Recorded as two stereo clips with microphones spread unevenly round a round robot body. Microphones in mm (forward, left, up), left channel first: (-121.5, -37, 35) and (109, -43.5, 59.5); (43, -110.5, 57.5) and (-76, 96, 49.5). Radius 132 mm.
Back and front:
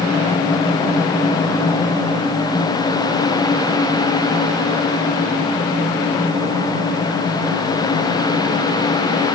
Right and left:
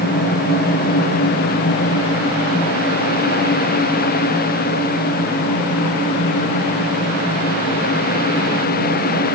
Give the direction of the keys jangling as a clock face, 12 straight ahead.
No keys jangling in this recording.